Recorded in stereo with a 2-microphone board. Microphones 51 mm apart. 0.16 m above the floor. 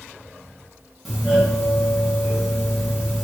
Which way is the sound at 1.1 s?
Centre (ahead or behind).